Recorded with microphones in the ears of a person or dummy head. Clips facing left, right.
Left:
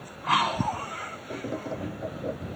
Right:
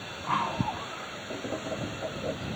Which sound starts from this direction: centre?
Tapping, at 1.3 s.